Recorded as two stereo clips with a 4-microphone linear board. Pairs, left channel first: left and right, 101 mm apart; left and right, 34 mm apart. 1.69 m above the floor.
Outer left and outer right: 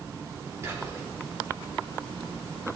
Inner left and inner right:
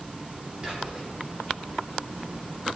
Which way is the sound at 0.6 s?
30° right (ahead or behind).